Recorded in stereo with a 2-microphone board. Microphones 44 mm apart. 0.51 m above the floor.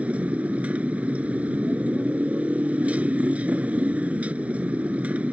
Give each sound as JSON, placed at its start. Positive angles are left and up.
{"t": 0.0, "sound": "a motorcycle", "side_deg": -30}